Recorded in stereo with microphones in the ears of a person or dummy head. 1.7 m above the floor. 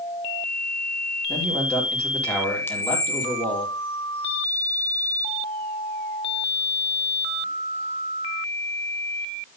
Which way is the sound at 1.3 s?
5° left (ahead or behind).